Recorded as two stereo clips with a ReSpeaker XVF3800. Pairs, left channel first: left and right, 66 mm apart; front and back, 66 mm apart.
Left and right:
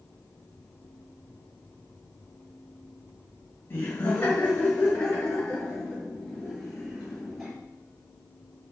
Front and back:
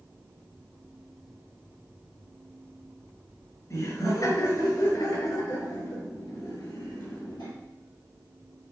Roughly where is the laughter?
Ahead left.